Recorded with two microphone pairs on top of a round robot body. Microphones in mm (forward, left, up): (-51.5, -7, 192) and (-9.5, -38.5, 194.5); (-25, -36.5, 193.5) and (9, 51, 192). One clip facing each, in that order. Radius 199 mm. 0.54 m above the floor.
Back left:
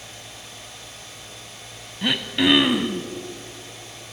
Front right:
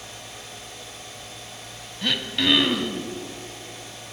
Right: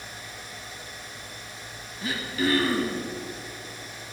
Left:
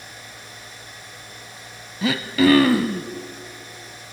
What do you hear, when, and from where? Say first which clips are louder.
2.0 s throat clearing: back left 3 dB, left 10 dB; 65° left, 1.2 m